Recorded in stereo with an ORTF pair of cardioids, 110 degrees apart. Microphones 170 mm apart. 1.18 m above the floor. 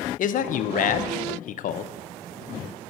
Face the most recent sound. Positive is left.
turn(degrees=50)